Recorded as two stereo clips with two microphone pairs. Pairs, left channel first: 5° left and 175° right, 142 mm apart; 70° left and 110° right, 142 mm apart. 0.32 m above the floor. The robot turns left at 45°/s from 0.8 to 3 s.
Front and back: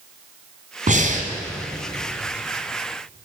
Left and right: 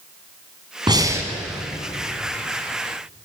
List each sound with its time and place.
0.9 s breathing: 165° right, 1.8 m; by 1.3 s 175° left, 1.8 m